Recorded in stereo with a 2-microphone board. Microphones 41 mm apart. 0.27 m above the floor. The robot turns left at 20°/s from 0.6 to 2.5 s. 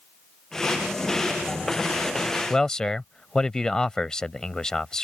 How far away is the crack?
No crack in this recording.